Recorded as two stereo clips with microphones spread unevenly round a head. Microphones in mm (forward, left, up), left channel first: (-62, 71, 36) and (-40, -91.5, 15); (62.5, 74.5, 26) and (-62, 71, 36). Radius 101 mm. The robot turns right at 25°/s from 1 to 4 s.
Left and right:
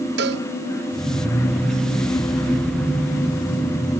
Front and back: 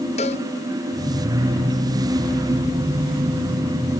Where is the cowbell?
50° right.